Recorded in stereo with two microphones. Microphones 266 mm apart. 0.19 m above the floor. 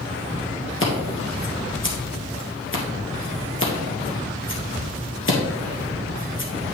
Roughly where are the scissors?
Left.